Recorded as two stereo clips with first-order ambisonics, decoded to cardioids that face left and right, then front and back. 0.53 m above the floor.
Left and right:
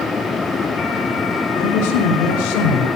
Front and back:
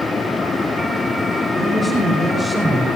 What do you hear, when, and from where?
1.6 s a man speaking: 85° left, 7 m; by 2.9 s 100° left, 6.5 m